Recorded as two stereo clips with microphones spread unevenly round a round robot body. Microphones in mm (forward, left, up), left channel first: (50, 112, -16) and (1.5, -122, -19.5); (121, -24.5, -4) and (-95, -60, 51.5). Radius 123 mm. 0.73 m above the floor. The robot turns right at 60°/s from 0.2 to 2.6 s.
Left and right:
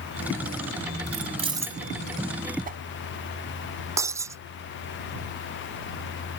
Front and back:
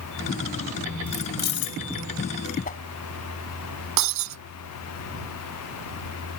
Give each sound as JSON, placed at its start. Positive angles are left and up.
{"t": 1.1, "sound": "keys jangling", "azimuth_deg": -55}
{"t": 2.6, "sound": "a whoosh", "azimuth_deg": -45}
{"t": 4.0, "sound": "breaking glass", "azimuth_deg": 180}